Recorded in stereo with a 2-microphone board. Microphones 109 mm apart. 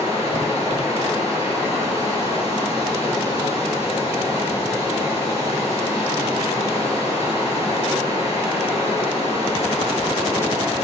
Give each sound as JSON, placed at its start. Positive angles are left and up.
{"t": 0.0, "sound": "running water", "side_deg": 65, "distance_m": 3.0}